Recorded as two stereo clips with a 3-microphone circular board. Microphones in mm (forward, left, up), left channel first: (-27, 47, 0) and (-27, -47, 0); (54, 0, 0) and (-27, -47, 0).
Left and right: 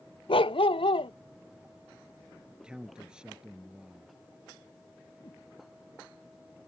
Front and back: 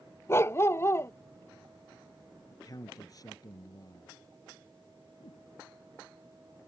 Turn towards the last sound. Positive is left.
turn(degrees=40)